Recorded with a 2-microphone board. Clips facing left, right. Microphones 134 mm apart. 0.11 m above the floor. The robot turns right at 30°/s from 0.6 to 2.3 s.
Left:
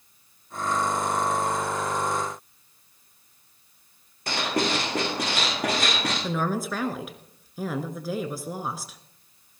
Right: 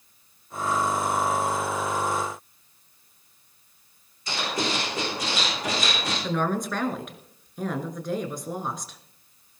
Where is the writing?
65° left (ahead or behind), 7 m.